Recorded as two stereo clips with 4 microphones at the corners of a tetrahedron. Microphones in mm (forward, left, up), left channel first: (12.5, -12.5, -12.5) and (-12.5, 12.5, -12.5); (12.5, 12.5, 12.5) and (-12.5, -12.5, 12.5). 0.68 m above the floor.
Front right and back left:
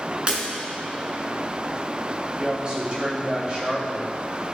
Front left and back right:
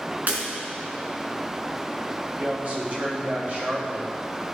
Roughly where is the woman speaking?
Behind.